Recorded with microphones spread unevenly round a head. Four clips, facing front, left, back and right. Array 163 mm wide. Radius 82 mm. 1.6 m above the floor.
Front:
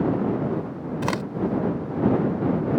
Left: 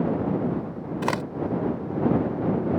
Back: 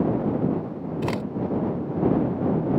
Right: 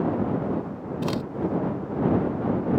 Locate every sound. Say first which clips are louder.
1.0 s a crack: left 2 dB, front 1 dB; 90° left